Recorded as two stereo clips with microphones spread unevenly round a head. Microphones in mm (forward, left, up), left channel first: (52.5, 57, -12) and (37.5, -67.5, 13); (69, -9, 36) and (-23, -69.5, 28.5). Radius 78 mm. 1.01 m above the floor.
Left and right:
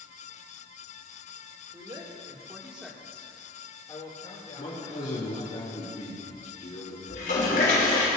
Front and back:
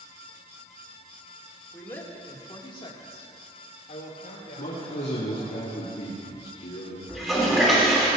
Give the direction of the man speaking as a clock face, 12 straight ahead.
11 o'clock.